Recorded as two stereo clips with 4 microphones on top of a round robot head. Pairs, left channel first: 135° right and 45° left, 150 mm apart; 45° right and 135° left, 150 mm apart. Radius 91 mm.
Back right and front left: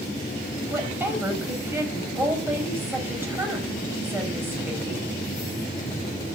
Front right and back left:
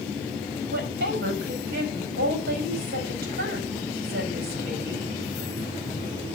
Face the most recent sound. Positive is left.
turn(degrees=120)